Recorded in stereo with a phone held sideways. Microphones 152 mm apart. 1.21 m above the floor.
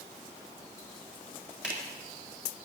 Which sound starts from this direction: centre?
A finger snap, at 1.6 s.